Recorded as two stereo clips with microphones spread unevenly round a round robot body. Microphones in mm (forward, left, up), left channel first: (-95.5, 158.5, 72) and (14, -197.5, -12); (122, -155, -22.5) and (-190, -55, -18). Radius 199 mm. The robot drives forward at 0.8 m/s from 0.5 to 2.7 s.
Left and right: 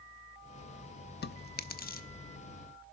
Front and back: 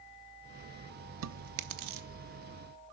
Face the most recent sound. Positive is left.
turn(degrees=180)